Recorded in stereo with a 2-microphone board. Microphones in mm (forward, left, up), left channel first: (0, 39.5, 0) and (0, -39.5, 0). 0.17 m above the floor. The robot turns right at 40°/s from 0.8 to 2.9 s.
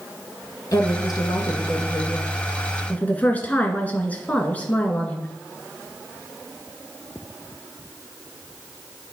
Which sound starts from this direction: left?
A woman speaking, at 0.7 s.